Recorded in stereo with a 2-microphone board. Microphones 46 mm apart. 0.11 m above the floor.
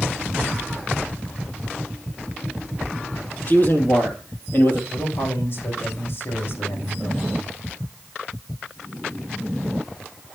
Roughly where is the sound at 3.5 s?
Left.